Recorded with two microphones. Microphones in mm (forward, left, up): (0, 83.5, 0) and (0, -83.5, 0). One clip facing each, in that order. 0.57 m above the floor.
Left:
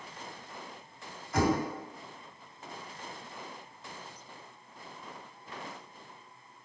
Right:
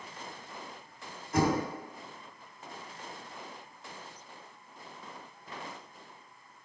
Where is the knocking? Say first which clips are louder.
Even; 55° right (ahead or behind), 1.6 m.